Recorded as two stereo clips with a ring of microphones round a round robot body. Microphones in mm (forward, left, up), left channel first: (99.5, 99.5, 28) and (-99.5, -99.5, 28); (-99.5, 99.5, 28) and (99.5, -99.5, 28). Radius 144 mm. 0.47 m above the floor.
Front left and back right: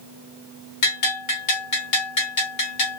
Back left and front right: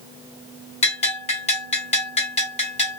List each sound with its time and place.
0.8 s a bell: 65° left, 2.5 m